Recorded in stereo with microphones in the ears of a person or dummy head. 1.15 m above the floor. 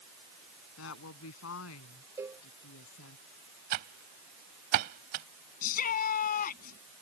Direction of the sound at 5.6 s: 45° left (ahead or behind).